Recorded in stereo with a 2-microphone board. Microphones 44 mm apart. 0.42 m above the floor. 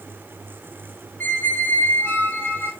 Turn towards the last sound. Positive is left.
turn(degrees=55)  # may be behind; listen again after turning